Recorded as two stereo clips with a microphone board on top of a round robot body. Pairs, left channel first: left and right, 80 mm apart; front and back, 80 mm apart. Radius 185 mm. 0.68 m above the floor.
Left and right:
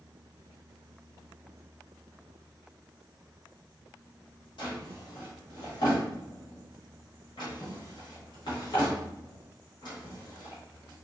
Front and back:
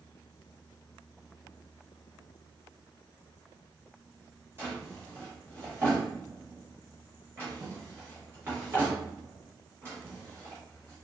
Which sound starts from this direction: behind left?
A drawer, at 4.6 s.